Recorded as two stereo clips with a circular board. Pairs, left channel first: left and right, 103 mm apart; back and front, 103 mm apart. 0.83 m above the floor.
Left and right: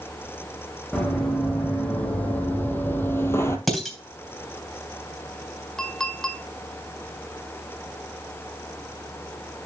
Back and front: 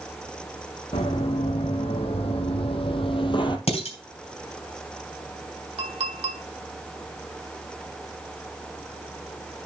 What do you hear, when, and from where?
0.9 s running footsteps: 170° left, 3.5 m; by 3.6 s 150° left, 1.5 m
3.7 s dishes clattering: straight behind, 3 m
5.8 s a clink: 5° left, 1.7 m